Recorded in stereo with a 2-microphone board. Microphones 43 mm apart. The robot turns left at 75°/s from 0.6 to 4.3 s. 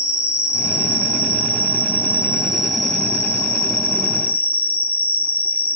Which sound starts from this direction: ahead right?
An insect, at 0.0 s.